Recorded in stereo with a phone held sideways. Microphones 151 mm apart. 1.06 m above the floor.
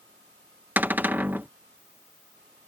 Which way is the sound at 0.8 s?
10° right (ahead or behind).